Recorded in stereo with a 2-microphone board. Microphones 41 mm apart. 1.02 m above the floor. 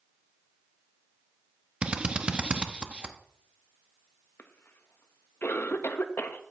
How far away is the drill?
About 0.9 m.